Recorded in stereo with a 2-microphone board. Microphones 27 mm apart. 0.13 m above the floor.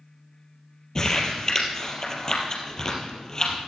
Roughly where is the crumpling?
Left.